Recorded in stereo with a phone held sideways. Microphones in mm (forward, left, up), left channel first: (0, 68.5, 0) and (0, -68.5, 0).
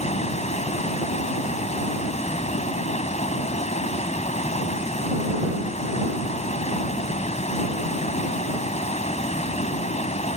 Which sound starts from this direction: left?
Running water, at 0.0 s.